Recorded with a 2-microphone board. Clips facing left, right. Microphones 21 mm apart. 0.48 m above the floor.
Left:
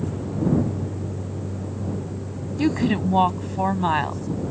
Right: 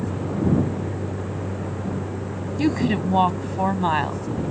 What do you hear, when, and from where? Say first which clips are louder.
0.0 s a vehicle: right 1 dB; 50° right (ahead or behind); by 4.5 s 65° right (ahead or behind)
2.6 s a woman speaking: even; centre (ahead or behind)